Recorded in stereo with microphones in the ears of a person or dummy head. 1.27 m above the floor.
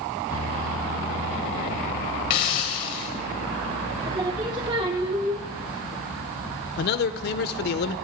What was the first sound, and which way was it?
A hiss, 25° left (ahead or behind).